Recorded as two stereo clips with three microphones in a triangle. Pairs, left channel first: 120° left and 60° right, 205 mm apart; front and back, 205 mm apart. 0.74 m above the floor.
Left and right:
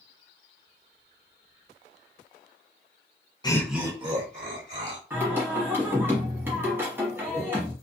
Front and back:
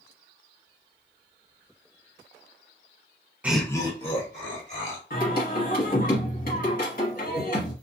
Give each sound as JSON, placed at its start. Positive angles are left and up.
{"t": 3.4, "sound": "laughter", "azimuth_deg": 110, "distance_m": 0.5}
{"t": 5.1, "sound": "singing", "azimuth_deg": 15, "distance_m": 1.1}